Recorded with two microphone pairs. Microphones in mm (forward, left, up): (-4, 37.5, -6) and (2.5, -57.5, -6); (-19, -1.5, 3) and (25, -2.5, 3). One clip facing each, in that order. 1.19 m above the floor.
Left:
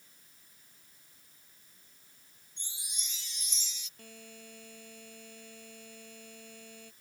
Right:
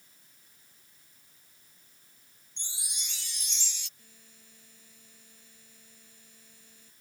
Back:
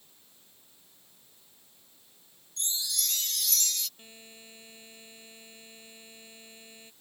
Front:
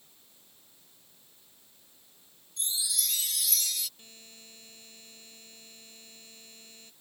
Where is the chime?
85° right.